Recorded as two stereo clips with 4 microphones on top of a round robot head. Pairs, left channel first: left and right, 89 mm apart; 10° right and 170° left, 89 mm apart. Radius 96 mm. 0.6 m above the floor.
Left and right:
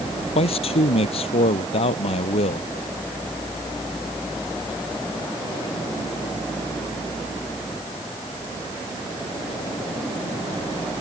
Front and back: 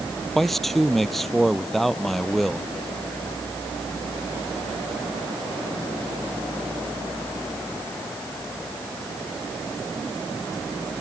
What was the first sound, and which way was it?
A man speaking, 80° left.